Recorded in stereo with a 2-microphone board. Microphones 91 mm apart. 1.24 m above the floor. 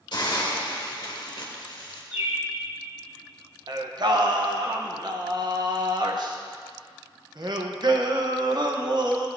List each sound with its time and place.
0.1 s a hiss: 60° left (ahead or behind), 1.6 m
2.1 s a bird: 25° right (ahead or behind), 3 m
3.7 s singing: 50° right (ahead or behind), 0.8 m